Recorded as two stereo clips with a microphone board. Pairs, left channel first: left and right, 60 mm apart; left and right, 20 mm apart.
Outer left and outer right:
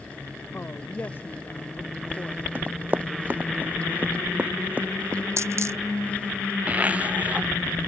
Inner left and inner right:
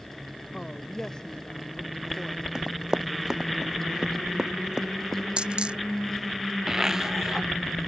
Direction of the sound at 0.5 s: 35° left (ahead or behind).